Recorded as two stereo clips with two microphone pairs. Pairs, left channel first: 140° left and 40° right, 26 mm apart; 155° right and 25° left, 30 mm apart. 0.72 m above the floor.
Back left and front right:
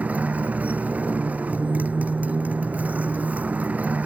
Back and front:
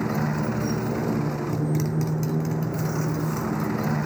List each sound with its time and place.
0.0 s a motorcycle: 65° right